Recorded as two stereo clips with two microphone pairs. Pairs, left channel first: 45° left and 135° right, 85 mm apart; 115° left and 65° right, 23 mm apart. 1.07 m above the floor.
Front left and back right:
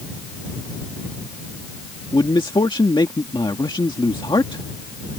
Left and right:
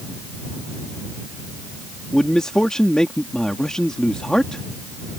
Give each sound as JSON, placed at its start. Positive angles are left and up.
{"t": 2.1, "sound": "a man speaking", "azimuth_deg": 65}